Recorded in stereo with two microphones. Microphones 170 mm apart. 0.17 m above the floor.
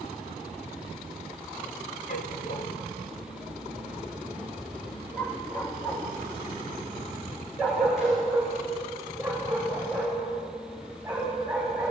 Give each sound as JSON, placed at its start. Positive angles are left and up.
{"t": 2.1, "sound": "a dog barking", "side_deg": 65, "distance_m": 1.8}